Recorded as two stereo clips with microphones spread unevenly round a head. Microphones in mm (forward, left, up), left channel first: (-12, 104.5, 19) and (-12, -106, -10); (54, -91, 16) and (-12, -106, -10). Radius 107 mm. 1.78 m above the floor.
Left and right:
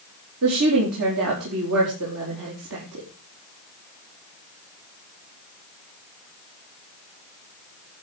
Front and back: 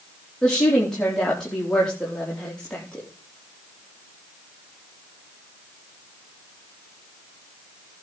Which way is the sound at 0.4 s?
65° right.